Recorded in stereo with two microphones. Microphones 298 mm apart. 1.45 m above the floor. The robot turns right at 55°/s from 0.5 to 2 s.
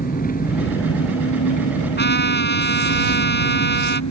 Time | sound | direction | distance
0.0 | an engine running | 30° left | ?
2.0 | a trumpet | 35° left (ahead or behind) | ?